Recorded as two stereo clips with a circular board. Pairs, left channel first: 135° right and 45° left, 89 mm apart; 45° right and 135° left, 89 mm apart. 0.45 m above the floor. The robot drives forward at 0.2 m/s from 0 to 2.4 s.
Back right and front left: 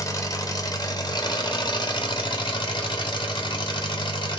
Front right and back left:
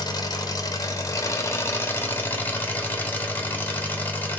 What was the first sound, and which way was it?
An engine running, 80° right.